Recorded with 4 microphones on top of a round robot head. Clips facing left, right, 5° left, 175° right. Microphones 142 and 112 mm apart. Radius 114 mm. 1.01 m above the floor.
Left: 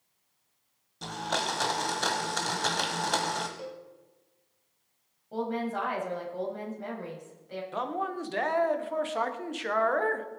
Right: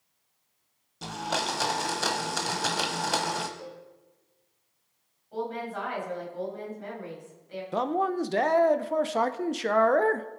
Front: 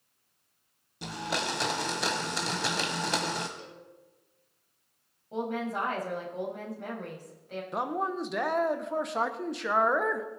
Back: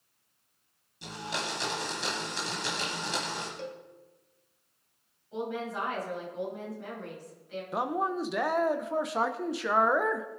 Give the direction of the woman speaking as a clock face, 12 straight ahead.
11 o'clock.